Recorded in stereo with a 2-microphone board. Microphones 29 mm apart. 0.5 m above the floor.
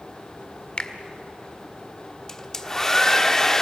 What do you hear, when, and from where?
0.8 s a finger snap: 35° left (ahead or behind), 1.5 m
2.3 s a hair dryer: 15° left (ahead or behind), 1.3 m